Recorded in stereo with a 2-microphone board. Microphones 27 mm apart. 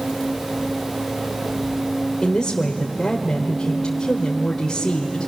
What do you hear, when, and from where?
2.2 s a woman speaking: 30° left (ahead or behind), 1.5 m